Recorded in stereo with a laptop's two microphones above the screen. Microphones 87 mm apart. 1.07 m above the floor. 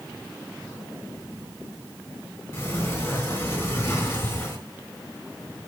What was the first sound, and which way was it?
A sliding door, 25° left (ahead or behind).